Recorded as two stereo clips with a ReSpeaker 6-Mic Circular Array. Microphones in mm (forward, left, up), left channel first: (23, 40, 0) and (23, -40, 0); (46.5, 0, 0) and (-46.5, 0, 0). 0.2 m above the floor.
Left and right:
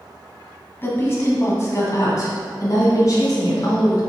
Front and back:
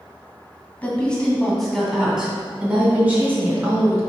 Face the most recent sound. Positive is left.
turn(degrees=120)